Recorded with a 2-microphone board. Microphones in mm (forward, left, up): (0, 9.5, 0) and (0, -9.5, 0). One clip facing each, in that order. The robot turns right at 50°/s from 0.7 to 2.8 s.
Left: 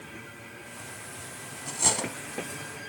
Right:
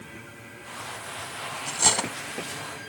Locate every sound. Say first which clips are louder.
1.7 s cutlery clinking: right 4 dB; 20° right (ahead or behind), 0.9 m; by 2.1 s 30° right (ahead or behind), 0.9 m